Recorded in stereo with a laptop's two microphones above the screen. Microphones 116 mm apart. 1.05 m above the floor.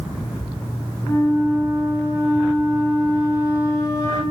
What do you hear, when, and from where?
1.0 s a flute: 25° left (ahead or behind), 0.8 m